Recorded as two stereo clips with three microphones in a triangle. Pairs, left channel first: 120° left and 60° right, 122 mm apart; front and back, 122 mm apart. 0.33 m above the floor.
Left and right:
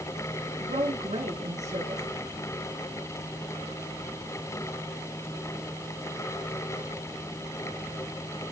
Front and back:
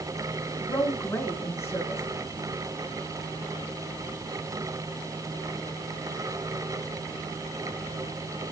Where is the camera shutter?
I don't hear a camera shutter.